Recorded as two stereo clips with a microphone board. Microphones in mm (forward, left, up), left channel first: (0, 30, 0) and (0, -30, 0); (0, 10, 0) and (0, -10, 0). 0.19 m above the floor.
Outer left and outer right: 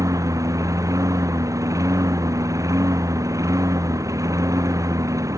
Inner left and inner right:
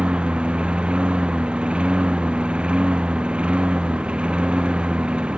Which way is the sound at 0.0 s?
65° right (ahead or behind).